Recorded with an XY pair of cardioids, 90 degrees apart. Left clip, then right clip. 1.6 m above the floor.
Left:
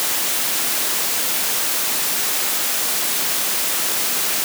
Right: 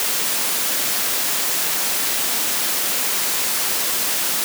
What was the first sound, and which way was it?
Only background noise.